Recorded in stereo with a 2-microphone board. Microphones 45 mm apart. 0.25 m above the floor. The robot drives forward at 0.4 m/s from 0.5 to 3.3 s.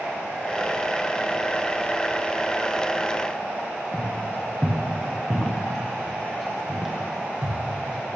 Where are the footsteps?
50° left (ahead or behind), 3 m; by 7.6 s 15° right (ahead or behind), 4 m.